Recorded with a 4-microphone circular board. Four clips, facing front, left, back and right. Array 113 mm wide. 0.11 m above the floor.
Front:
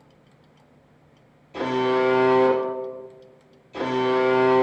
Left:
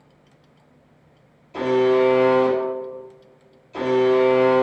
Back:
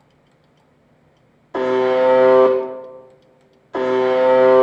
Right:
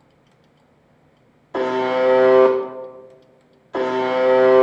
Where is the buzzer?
140° right, 2.5 m.